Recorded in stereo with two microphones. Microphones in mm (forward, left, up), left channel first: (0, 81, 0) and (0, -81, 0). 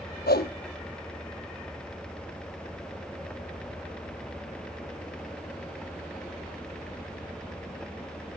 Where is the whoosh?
85° left, 1.2 m.